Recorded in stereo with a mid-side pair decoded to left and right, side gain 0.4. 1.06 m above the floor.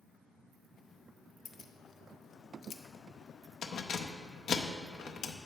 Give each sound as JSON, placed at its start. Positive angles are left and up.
{"t": 1.4, "sound": "keys jangling", "azimuth_deg": 65, "distance_m": 0.6}